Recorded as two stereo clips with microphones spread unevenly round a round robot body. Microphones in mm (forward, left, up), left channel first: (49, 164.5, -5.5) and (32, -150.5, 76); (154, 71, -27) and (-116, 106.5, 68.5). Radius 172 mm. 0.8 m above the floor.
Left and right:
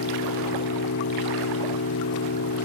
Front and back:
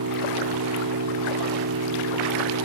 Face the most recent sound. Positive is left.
turn(degrees=140)